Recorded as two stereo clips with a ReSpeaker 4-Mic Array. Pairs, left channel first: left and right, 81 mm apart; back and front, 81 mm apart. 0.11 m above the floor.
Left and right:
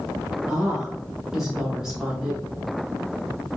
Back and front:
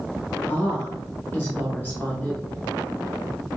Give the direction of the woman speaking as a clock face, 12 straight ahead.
5 o'clock.